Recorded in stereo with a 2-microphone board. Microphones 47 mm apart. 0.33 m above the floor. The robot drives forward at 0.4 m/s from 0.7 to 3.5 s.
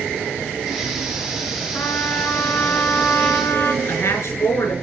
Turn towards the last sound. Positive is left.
turn(degrees=75)  # may be behind; listen again after turning